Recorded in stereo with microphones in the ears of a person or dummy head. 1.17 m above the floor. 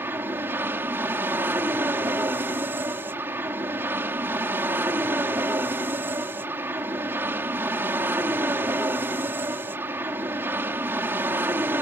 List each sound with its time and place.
0.0 s an aircraft: 10° right (ahead or behind)